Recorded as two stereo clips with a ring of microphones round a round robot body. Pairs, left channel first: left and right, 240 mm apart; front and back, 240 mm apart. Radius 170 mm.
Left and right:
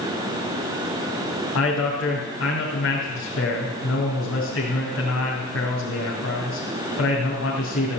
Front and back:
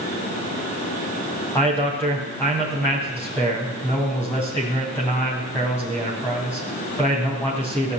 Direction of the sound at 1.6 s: 80° left.